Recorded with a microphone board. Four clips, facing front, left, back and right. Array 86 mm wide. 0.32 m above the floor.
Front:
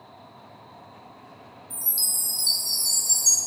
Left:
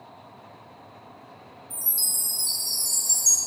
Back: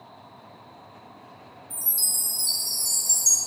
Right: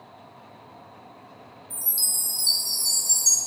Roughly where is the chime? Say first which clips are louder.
Even, even; ahead right.